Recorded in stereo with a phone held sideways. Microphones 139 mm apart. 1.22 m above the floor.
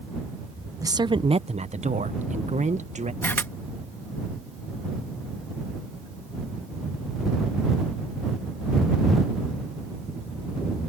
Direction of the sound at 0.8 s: 25° right (ahead or behind).